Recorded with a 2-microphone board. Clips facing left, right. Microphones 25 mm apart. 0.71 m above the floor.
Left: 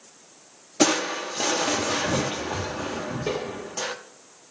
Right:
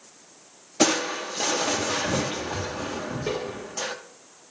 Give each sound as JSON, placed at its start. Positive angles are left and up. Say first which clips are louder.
{"t": 0.8, "sound": "crushing", "louder": "left 1 dB", "side_deg": 5, "distance_m": 0.8}